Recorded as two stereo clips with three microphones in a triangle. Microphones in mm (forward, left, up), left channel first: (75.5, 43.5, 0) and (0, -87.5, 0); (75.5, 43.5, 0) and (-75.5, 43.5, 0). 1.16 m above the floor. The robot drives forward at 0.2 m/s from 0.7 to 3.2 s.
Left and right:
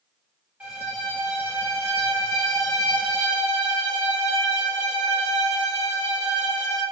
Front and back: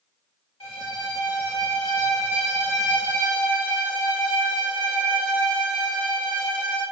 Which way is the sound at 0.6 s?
40° right.